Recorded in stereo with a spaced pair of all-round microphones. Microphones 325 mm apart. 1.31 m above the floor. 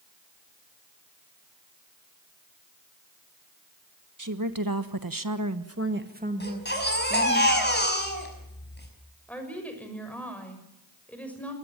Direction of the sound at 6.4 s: 30° left (ahead or behind).